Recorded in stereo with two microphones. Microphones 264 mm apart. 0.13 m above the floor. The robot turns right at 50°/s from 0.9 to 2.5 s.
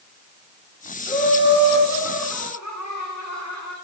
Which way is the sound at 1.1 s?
25° left.